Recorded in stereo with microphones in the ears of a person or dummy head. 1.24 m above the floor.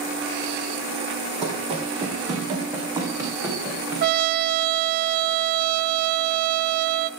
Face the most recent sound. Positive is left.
turn(degrees=-55)  # may be behind; listen again after turning